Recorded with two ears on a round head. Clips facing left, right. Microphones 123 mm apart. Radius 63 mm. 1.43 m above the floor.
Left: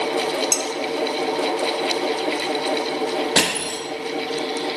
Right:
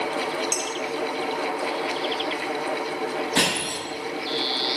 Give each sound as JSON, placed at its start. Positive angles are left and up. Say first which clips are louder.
{"t": 0.5, "sound": "dishes clattering", "louder": "left 4 dB", "side_deg": 60, "distance_m": 0.9}
{"t": 3.4, "sound": "crushing", "louder": "left 2 dB", "side_deg": 75, "distance_m": 3.5}